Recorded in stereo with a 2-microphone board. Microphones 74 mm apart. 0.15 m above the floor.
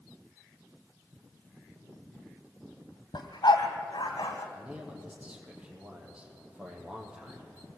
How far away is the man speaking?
About 6 m.